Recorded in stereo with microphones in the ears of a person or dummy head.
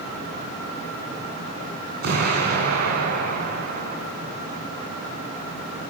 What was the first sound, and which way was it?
An explosion, 50° right (ahead or behind).